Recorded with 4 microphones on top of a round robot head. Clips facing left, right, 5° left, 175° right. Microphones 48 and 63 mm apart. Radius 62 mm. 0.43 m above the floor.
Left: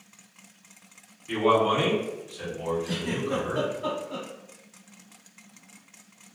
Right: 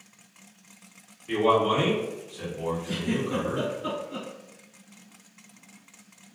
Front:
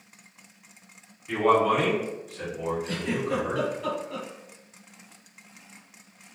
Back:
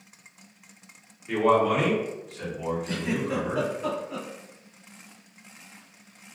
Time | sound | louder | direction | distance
1.3 | a man speaking | even, even | 120° right | 1.6 m
2.9 | a giggle | right 1 dB, even | 110° left | 1.0 m